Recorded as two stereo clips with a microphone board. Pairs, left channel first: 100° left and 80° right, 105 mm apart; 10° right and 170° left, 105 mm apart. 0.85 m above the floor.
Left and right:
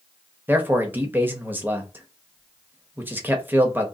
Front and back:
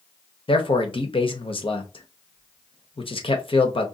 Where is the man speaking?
10° right, 0.8 m.